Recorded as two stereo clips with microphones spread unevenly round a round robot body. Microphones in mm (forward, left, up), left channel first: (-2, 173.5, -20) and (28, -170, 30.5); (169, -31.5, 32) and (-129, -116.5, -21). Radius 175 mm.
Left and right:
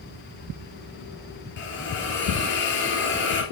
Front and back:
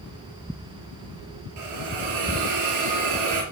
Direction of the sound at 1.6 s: 155° left.